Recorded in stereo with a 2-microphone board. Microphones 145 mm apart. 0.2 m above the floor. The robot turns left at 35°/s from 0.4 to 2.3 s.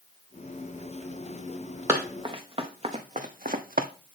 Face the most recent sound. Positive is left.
turn(degrees=-75)  # may be behind; listen again after turning